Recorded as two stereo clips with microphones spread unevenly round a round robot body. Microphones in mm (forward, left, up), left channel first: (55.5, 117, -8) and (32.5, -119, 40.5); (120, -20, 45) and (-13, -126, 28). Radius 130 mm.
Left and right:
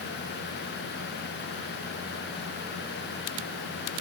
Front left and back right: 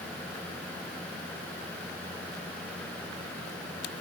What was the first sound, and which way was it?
Only background noise.